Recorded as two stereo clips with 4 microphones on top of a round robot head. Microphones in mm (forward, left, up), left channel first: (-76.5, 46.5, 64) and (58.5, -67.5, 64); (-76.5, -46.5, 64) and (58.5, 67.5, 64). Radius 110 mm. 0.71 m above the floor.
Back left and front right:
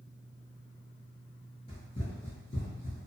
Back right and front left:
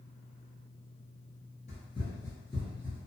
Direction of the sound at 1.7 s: 175° right.